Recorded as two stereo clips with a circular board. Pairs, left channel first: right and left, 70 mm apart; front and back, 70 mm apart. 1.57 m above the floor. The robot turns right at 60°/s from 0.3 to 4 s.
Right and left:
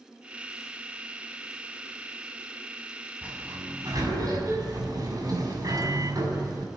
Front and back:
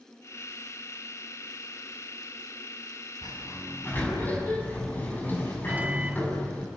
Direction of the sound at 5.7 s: 115° left.